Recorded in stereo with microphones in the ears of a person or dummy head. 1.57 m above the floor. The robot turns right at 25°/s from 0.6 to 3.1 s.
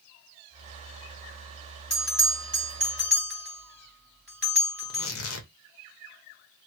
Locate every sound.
1.9 s a bell: 35° left (ahead or behind), 2 m; by 5.1 s 15° left (ahead or behind), 2 m
4.8 s tearing paper: 70° left (ahead or behind), 0.7 m